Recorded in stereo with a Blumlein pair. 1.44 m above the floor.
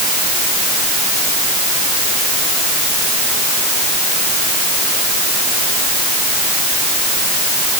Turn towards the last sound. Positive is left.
No sound to turn to.